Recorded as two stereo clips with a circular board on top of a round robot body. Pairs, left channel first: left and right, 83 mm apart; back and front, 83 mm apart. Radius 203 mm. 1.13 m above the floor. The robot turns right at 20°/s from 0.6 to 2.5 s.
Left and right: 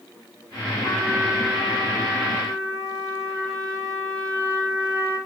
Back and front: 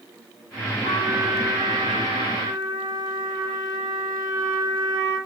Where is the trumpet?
10° right, 0.6 m; by 5.2 s 25° left, 0.6 m.